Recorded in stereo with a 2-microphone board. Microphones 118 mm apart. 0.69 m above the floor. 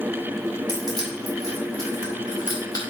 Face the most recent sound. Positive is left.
turn(degrees=35)  # may be behind; listen again after turning